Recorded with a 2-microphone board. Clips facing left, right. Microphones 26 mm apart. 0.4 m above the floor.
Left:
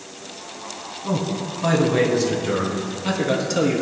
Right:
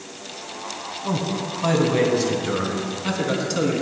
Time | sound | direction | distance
1.0 | a man speaking | 20° right (ahead or behind) | 2.5 m